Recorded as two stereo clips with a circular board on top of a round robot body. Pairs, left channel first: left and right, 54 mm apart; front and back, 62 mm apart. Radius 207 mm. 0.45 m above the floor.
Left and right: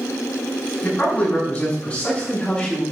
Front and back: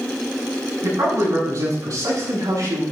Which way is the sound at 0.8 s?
150° left.